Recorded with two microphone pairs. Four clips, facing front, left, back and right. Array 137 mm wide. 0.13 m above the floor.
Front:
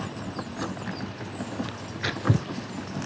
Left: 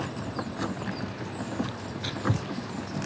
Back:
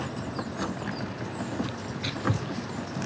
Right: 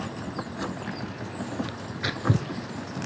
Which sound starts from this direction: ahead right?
Tearing paper, at 1.7 s.